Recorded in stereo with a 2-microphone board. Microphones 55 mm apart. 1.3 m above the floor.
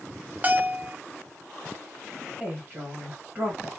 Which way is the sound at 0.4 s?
25° right (ahead or behind).